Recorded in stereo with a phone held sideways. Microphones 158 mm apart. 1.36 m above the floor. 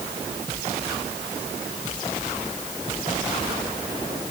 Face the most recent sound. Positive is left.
No sound to turn to.